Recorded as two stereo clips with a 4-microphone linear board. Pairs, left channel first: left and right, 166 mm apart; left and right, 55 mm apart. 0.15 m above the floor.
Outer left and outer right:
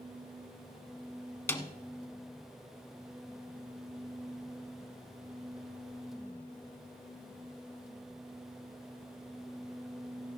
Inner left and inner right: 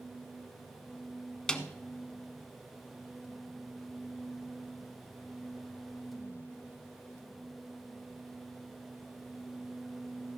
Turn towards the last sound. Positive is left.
turn(degrees=15)  # may be behind; listen again after turning